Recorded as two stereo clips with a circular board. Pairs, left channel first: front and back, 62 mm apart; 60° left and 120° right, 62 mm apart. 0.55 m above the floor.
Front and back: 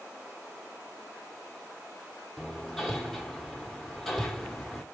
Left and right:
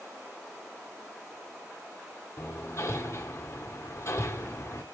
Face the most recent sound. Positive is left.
turn(degrees=90)